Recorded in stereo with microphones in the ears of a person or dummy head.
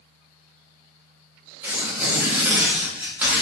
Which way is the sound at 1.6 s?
10° right (ahead or behind).